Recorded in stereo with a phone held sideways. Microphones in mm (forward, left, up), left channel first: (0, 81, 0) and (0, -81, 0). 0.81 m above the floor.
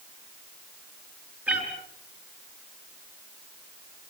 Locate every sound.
1.5 s a cat meowing: 10° right (ahead or behind), 5.5 m